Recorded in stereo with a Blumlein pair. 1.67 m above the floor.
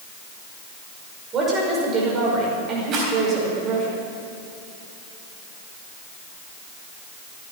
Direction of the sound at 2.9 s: 30° right.